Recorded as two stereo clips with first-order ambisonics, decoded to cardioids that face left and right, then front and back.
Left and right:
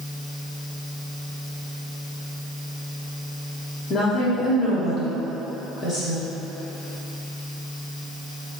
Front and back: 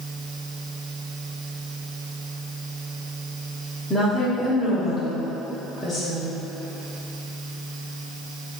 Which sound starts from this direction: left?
A woman speaking, at 3.9 s.